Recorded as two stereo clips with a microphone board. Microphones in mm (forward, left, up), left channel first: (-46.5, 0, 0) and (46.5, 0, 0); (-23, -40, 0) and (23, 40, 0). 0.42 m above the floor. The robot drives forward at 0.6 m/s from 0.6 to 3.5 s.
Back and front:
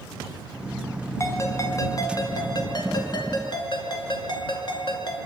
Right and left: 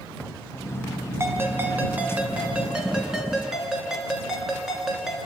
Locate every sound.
1.2 s a ringtone: 120° left, 2 m; by 5.2 s 145° left, 3 m